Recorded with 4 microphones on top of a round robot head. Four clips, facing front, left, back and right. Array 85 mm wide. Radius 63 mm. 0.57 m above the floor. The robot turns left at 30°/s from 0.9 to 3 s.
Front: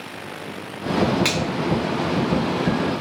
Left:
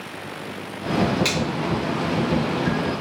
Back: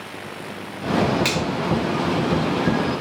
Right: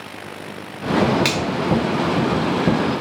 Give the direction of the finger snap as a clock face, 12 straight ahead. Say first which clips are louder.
Right 3 dB, even; 3 o'clock.